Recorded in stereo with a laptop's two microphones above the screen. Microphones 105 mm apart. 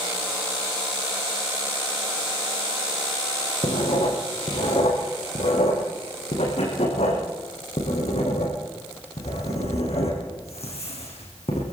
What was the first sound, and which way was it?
Writing, 85° left.